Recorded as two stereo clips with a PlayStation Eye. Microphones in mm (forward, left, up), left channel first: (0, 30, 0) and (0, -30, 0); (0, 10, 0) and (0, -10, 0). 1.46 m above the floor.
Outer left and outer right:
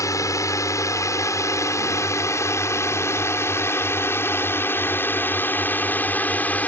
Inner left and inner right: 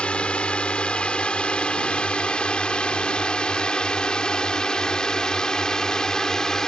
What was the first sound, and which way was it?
A drone, 65° left (ahead or behind).